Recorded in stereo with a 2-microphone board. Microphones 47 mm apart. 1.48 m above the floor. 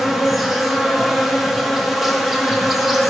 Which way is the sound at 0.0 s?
Centre (ahead or behind).